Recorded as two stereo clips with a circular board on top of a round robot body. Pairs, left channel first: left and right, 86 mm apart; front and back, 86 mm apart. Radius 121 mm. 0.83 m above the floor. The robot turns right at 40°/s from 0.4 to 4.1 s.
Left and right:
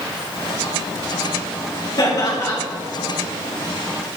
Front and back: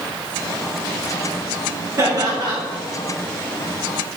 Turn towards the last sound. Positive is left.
turn(degrees=-145)